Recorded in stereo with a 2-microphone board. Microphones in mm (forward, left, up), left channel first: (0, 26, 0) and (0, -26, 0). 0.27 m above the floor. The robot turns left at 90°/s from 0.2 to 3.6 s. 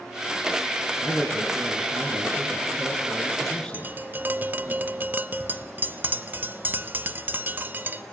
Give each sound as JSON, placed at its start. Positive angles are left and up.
{"t": 1.0, "sound": "a man speaking", "azimuth_deg": 35, "distance_m": 4.0}
{"t": 3.7, "sound": "tapping", "side_deg": -35, "distance_m": 0.5}